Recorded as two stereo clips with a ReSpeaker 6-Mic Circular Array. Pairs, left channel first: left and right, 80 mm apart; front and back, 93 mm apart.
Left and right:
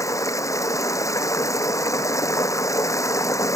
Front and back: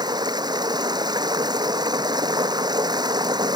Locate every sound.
0.0 s running water: 140° left